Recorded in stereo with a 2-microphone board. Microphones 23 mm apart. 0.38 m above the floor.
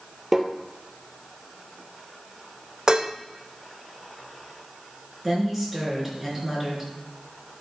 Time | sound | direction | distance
0.3 | tapping | 25° right (ahead or behind) | 1.3 m
2.9 | dishes clattering | 35° right (ahead or behind) | 0.6 m
5.2 | a woman speaking | 5° right (ahead or behind) | 4.5 m